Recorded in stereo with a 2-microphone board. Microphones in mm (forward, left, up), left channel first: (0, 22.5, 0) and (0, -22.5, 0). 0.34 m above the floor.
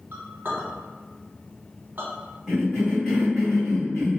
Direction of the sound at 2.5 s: 10° right (ahead or behind).